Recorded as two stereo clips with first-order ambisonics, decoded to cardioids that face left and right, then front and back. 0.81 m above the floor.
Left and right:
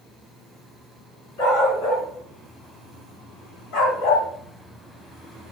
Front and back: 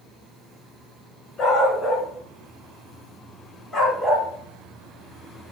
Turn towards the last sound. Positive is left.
turn(degrees=95)